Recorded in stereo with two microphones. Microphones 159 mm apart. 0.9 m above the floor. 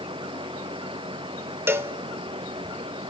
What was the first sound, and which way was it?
A cowbell, 15° right (ahead or behind).